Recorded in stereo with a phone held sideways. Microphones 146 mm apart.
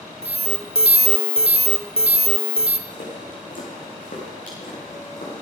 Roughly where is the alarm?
Right.